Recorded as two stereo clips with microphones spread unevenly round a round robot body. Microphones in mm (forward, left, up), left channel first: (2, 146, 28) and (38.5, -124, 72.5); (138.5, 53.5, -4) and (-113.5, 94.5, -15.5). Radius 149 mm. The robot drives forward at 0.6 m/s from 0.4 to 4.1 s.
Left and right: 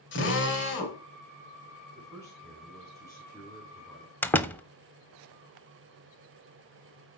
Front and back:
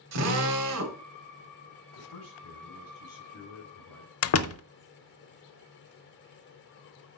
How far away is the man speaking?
About 4 m.